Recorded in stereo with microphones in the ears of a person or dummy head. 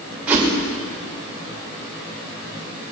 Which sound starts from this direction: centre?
A whoosh, at 0.3 s.